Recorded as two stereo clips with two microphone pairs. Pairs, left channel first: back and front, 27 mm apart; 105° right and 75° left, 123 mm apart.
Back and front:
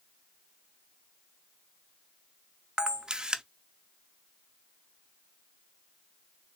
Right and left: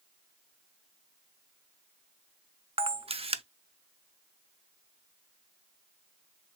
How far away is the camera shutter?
About 0.5 m.